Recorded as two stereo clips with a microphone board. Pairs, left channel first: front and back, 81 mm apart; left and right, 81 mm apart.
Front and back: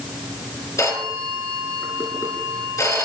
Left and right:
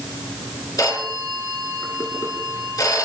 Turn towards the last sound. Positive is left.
turn(degrees=45)